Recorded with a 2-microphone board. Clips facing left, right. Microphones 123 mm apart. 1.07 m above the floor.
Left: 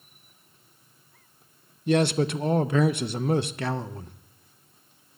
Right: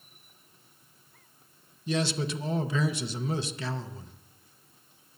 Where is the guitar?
I don't hear a guitar.